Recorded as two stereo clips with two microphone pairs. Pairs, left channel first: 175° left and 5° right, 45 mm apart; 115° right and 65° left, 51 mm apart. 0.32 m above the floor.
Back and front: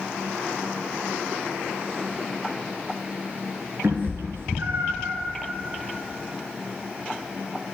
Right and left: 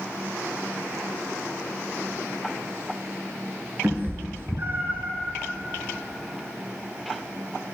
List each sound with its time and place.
3.8 s a cat meowing: 25° left, 0.9 m